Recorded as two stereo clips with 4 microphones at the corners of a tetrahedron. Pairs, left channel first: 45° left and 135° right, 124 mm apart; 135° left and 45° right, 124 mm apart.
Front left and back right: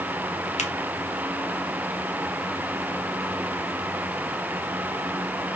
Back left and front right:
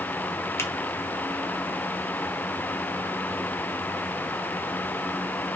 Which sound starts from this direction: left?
A finger snap, at 0.6 s.